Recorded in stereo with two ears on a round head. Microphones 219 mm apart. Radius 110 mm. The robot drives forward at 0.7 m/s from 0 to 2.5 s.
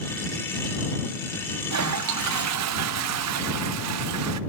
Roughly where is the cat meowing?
I don't hear a cat meowing.